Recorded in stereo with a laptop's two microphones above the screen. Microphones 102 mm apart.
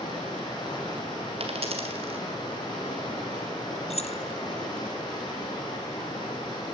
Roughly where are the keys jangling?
Left.